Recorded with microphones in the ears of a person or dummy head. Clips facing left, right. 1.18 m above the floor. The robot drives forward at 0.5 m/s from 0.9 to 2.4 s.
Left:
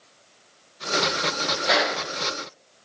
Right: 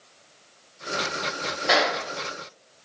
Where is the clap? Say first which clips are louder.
Right 1 dB; 15° right (ahead or behind), 2 m.